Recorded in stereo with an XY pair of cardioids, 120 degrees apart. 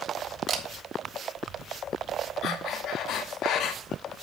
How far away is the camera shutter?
About 1.7 m.